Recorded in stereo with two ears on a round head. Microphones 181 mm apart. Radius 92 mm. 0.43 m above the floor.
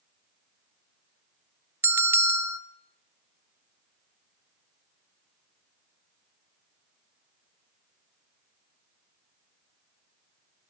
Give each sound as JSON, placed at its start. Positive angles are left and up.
{"t": 1.8, "sound": "a bell", "side_deg": -10, "distance_m": 0.5}